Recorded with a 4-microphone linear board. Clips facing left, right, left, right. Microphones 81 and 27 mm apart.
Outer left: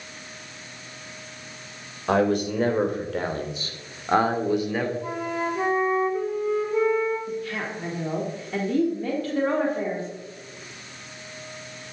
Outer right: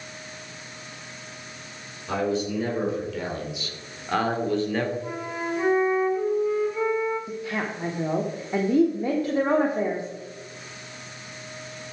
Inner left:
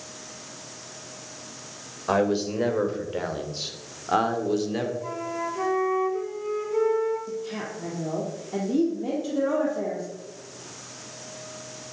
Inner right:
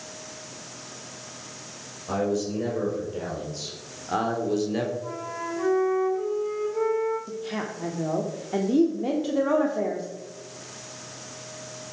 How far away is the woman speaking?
About 1.2 m.